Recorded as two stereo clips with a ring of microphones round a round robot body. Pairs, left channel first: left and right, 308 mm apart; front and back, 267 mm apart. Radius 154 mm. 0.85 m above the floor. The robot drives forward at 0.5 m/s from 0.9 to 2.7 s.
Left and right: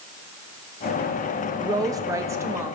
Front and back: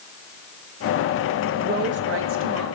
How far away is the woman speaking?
About 0.7 m.